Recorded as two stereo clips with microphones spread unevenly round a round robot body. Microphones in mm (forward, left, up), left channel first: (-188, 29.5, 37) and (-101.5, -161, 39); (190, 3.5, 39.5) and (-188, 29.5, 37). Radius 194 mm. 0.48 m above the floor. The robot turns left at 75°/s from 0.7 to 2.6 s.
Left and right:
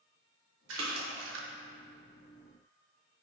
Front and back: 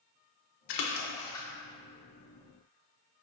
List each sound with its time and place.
0.7 s a splash: 35° right, 0.6 m; by 1.5 s 95° right, 0.6 m